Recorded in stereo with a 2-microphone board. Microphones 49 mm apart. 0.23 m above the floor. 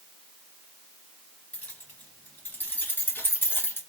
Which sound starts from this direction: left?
Keys jangling, at 1.5 s.